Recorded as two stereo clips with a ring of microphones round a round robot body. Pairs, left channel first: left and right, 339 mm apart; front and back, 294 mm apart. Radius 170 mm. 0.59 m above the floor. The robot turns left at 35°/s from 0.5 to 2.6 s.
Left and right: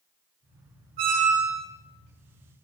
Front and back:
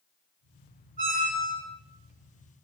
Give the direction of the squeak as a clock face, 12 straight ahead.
4 o'clock.